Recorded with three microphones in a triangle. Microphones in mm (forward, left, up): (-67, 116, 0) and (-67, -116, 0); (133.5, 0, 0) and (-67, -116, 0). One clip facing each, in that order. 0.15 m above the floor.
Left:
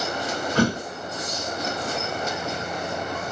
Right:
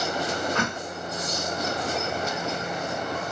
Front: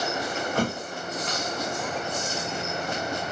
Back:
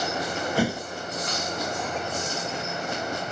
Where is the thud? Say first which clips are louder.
Left 8 dB, back 3 dB; 135° left.